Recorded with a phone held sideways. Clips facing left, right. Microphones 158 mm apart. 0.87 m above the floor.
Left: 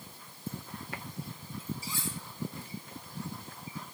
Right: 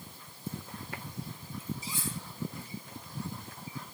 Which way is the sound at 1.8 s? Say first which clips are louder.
Even; 20° right (ahead or behind).